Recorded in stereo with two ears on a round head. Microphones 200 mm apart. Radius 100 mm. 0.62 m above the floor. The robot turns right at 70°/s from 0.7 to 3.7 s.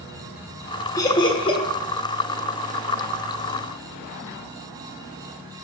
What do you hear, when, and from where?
1.0 s laughter: 15° left (ahead or behind), 0.5 m; by 1.6 s 25° left (ahead or behind), 0.5 m